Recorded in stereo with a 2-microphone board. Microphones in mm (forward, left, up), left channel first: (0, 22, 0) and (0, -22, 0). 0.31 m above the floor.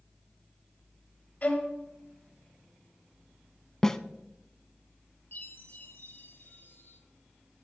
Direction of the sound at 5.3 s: 55° left (ahead or behind).